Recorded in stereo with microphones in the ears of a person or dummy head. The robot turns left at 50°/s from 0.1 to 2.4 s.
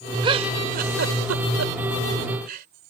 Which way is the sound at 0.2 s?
25° right (ahead or behind).